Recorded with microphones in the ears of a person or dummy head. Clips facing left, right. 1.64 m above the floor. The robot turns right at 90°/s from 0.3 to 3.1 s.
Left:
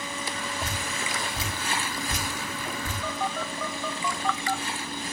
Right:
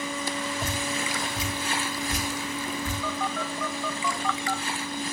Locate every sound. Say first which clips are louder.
0.6 s dripping: right 3 dB; 45° right (ahead or behind), 4.5 m; by 2.9 s 15° left (ahead or behind), 4.5 m
3.0 s a phone buzzing: right 1 dB; 15° left (ahead or behind), 1.3 m; by 4.6 s 10° left (ahead or behind), 1.3 m